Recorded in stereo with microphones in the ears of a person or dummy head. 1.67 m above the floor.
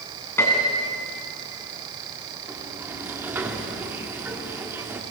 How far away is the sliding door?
About 1.9 m.